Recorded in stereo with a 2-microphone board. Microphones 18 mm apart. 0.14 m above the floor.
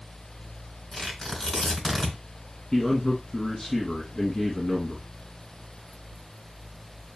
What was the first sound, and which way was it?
Tearing paper, 25° left (ahead or behind).